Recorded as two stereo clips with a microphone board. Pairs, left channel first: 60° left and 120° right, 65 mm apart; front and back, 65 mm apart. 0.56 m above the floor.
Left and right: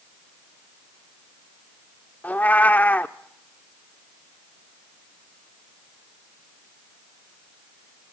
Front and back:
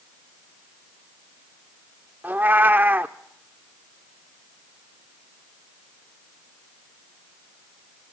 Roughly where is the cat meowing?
Behind left.